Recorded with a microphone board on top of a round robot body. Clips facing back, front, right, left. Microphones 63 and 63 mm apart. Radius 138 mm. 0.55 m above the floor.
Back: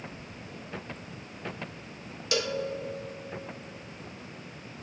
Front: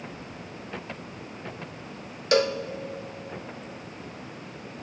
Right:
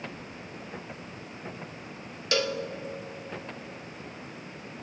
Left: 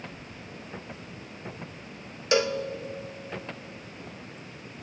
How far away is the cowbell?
About 0.5 m.